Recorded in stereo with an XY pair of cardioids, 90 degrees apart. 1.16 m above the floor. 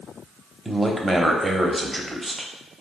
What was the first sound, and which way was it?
A man speaking, 15° right.